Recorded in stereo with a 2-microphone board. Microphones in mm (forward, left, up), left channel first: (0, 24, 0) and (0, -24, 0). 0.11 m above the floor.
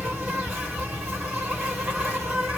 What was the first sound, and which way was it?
An insect, 25° right (ahead or behind).